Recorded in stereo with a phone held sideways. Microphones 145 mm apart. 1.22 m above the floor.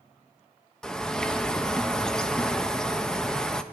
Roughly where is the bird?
Centre.